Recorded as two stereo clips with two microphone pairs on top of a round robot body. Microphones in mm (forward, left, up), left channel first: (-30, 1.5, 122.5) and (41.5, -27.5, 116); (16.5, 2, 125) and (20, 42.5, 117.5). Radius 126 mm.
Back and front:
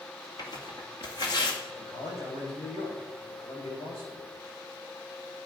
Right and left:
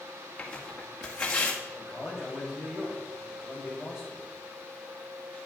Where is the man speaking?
160° left, 6 m.